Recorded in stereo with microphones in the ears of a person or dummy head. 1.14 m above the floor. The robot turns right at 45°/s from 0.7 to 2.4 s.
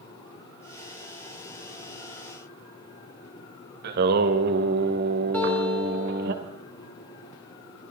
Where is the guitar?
10° left (ahead or behind), 5 m.